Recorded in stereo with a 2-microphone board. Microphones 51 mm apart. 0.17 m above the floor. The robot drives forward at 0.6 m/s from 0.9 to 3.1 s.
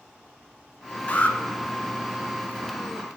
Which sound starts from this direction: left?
An alarm, at 1.1 s.